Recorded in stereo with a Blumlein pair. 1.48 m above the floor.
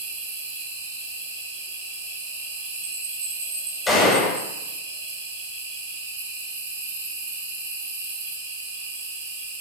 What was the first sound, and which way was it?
An insect, 50° right.